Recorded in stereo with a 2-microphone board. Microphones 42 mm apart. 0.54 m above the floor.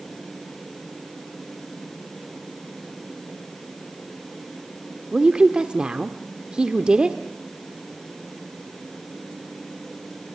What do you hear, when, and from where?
5.1 s a woman speaking: 20° right (ahead or behind), 1.1 m